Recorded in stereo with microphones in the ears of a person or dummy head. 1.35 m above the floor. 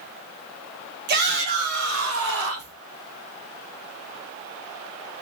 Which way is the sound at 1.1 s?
50° right (ahead or behind).